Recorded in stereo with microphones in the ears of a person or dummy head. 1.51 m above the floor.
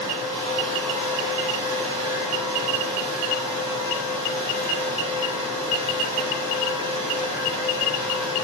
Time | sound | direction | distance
0.0 | a fan | 30° right (ahead or behind) | 3.5 m